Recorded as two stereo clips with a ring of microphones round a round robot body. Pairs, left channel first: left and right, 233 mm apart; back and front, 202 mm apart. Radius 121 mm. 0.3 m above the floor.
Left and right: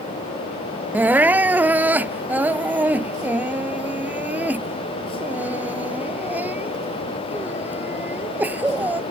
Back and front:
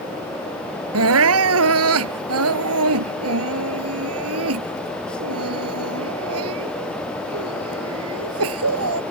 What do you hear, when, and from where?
0.9 s crying: 5° right